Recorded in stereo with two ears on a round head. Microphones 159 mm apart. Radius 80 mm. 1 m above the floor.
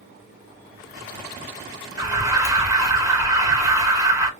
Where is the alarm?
20° right (ahead or behind), 1.1 m.